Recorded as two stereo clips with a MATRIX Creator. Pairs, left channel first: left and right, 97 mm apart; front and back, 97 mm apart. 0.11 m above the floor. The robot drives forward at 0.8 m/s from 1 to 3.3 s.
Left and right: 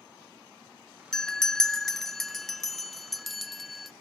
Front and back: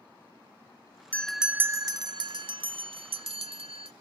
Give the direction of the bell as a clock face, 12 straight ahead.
11 o'clock.